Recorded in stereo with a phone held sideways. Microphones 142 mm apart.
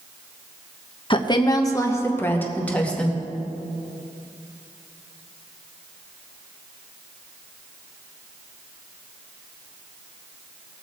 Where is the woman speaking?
35° left (ahead or behind), 1.1 m; by 3.2 s 5° left (ahead or behind), 2.0 m.